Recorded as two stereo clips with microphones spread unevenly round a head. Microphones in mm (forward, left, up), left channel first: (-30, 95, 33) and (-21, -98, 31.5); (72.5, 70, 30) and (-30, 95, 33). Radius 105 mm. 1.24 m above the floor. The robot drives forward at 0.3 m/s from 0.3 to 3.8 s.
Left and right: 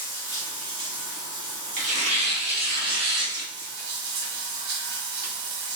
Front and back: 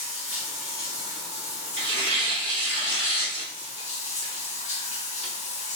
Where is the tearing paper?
135° right, 0.9 m; by 5.3 s 155° right, 1.3 m.